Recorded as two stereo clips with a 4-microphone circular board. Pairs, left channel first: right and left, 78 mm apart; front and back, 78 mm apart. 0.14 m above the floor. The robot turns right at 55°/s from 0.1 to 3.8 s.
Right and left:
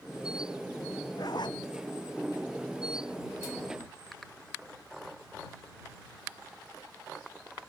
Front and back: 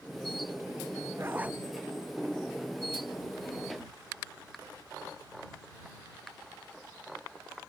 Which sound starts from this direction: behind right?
A zipper, at 1.2 s.